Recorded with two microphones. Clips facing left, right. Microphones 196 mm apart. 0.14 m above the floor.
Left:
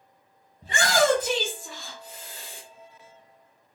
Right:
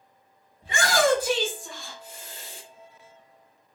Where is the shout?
40° left (ahead or behind), 1.6 m; by 2.6 s 30° right (ahead or behind), 1.4 m.